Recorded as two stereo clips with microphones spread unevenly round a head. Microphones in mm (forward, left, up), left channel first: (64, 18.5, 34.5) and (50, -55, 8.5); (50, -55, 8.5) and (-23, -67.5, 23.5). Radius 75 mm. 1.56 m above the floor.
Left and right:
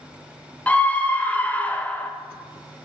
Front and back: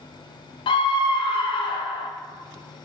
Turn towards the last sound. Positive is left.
turn(degrees=5)